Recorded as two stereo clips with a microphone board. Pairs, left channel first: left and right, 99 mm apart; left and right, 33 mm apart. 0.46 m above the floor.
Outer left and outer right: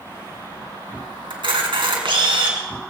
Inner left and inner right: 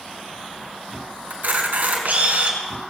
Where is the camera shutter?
65° right (ahead or behind), 3 m.